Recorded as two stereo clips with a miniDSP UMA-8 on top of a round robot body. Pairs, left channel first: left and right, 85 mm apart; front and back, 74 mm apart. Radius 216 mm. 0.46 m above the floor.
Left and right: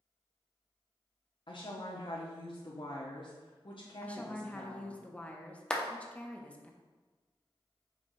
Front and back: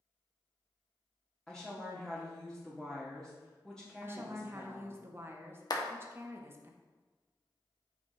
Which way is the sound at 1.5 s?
80° left.